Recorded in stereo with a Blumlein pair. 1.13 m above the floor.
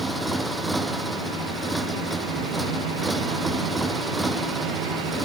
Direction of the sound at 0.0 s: 10° right.